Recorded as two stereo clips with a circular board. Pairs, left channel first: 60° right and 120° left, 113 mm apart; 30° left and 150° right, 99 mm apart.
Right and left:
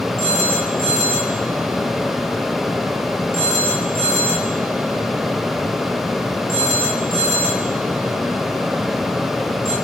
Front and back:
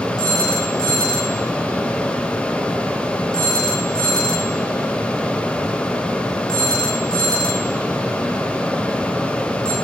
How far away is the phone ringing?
About 6.5 m.